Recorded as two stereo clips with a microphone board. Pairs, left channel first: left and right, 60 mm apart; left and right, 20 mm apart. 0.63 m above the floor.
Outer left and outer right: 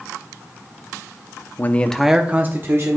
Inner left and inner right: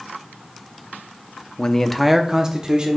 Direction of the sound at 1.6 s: 35° left (ahead or behind).